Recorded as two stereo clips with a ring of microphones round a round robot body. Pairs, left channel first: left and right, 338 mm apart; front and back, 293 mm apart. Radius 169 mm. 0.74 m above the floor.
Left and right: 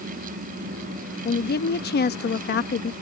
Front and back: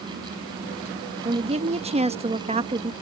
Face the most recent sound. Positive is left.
turn(degrees=125)